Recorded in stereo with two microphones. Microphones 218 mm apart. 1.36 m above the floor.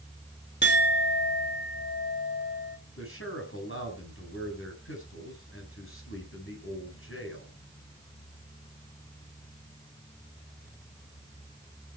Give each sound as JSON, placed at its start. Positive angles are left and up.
{"t": 0.6, "sound": "a clink", "side_deg": 50, "distance_m": 1.7}
{"t": 3.0, "sound": "a man speaking", "side_deg": 70, "distance_m": 9.0}